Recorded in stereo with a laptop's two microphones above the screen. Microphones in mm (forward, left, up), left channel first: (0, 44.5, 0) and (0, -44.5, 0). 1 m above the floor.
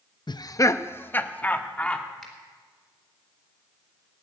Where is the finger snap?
Centre (ahead or behind), 4 m.